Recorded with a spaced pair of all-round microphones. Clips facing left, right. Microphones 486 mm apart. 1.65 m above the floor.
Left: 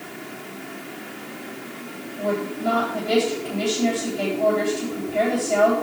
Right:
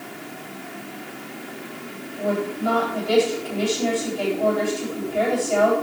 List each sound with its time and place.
2.2 s a woman speaking: 40° left (ahead or behind), 10 m